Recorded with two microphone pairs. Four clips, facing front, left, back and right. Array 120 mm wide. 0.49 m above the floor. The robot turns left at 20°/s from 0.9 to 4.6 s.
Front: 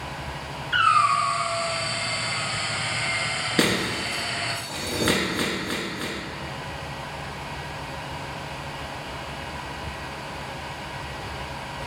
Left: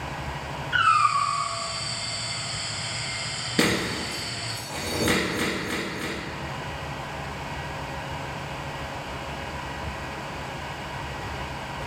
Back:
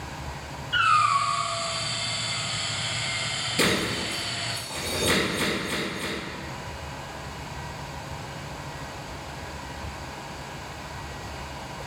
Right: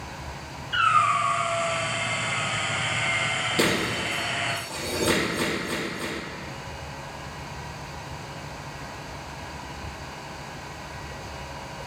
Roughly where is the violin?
I don't hear a violin.